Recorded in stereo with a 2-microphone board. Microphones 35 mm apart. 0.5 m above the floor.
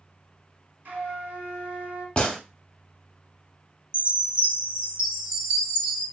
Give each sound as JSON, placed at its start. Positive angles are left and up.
{"t": 0.8, "sound": "a flute", "side_deg": -65, "distance_m": 1.6}
{"t": 2.2, "sound": "a gunshot", "side_deg": 30, "distance_m": 0.8}
{"t": 3.9, "sound": "a chime", "side_deg": -25, "distance_m": 1.4}